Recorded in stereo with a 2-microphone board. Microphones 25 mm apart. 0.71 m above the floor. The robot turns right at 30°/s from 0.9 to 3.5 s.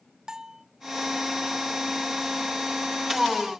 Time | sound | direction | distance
0.3 | a bell | 30° right (ahead or behind) | 0.8 m